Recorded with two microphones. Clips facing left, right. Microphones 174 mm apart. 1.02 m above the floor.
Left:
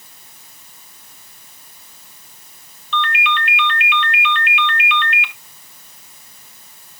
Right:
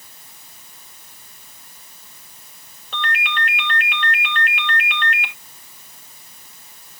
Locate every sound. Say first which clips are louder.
2.9 s a ringtone: left 5 dB; 45° right (ahead or behind), 1.8 m